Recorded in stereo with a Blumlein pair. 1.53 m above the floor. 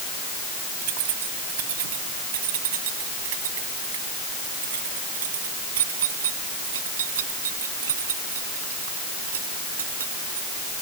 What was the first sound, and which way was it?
Keys jangling, 50° right.